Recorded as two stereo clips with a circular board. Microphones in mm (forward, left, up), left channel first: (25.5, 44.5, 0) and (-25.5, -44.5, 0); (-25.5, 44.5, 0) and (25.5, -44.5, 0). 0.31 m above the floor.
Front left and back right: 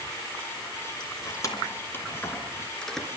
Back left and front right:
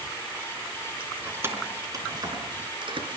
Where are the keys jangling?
15° left, 3 m; by 3.1 s 30° right, 4 m.